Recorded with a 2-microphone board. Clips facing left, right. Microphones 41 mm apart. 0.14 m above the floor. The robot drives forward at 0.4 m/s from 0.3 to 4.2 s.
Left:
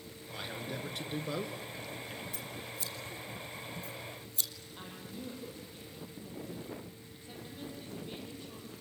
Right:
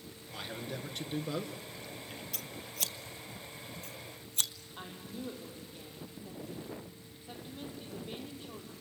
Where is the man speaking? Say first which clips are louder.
Left 1 dB; 5° left (ahead or behind), 2 m.